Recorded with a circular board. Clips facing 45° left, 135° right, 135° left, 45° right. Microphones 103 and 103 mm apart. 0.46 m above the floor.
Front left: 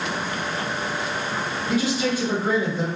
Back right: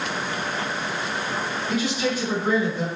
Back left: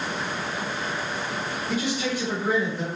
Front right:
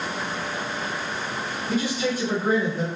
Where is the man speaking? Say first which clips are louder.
Front left 3 dB, front right 3 dB; 5° left, 1.8 m.